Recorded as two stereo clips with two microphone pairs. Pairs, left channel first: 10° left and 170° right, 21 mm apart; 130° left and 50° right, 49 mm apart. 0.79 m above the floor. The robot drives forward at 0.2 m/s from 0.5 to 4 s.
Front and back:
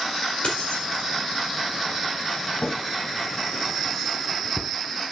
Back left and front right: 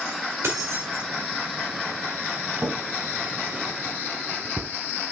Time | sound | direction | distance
0.4 | keys jangling | 25° right | 1.7 m
2.6 | a drawer | 5° right | 1.0 m